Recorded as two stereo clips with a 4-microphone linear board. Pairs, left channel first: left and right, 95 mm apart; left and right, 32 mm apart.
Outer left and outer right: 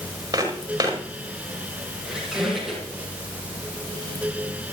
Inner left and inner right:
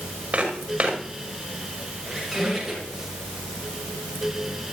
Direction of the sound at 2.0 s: 5° right (ahead or behind).